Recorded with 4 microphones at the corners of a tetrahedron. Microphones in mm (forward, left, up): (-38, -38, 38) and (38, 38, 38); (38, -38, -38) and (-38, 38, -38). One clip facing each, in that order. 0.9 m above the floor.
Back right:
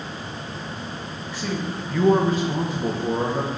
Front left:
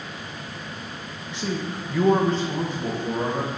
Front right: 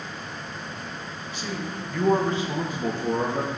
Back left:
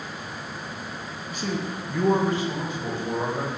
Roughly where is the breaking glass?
No breaking glass in this recording.